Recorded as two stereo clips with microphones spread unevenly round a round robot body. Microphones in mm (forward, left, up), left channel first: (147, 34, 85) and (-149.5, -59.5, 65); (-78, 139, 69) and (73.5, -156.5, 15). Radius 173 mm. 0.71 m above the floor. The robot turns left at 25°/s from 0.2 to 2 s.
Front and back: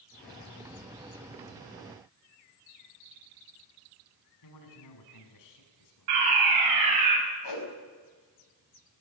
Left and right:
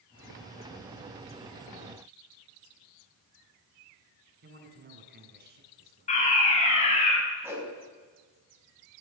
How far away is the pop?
I don't hear a pop.